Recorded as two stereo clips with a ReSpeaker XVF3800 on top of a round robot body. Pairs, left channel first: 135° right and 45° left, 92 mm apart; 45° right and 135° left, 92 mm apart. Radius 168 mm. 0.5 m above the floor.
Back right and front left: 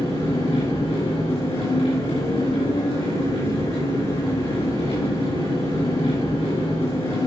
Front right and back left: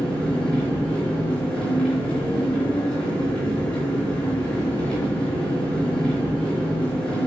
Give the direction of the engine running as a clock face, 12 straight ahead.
4 o'clock.